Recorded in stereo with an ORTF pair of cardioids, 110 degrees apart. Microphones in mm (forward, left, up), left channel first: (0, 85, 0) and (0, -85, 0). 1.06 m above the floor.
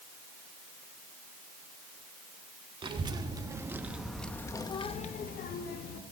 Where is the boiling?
I don't hear boiling.